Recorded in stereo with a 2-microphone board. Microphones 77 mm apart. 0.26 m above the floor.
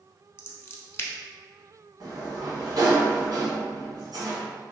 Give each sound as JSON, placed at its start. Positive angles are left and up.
{"t": 0.4, "sound": "scissors", "side_deg": 30, "distance_m": 0.6}
{"t": 2.0, "sound": "a sliding door", "side_deg": -55, "distance_m": 1.3}